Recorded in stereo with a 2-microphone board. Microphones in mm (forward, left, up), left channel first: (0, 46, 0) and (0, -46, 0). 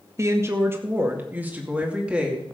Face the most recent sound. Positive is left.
turn(degrees=-10)  # may be behind; listen again after turning